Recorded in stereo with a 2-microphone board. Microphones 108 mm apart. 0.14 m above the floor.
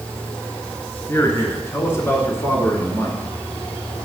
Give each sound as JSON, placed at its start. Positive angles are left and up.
{"t": 1.1, "sound": "a man speaking", "side_deg": 25, "distance_m": 1.6}